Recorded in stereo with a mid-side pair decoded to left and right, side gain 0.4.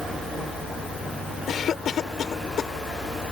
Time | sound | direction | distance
1.5 | a cough | 65° left | ?